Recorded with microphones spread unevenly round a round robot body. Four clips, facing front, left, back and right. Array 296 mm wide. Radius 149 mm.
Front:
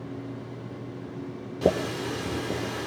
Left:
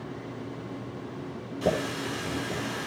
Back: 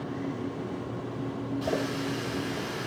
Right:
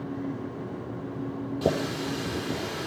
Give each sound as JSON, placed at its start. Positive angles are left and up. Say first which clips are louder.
{"t": 1.6, "sound": "a running tap", "louder": "even, front 7 dB", "azimuth_deg": -20, "distance_m": 7.0}